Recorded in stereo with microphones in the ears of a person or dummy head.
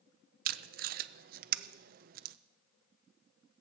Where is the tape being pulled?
45° right (ahead or behind), 0.6 m.